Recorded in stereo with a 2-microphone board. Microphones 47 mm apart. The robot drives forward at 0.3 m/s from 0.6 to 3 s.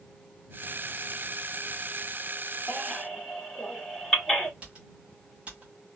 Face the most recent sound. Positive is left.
turn(degrees=-25)  # may be behind; listen again after turning